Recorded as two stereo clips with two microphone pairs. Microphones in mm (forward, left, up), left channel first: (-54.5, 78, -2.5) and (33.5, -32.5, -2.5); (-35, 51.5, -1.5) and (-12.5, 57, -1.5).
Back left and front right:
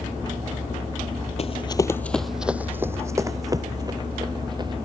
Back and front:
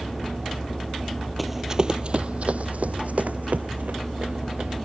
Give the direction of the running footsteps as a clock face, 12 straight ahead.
8 o'clock.